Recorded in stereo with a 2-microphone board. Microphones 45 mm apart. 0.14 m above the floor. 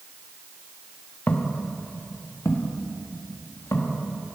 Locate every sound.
1.3 s footsteps: 35° left (ahead or behind), 1.3 m; by 4.0 s 85° left, 2.5 m